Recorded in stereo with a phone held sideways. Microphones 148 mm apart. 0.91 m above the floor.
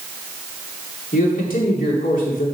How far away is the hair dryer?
No hair dryer in this recording.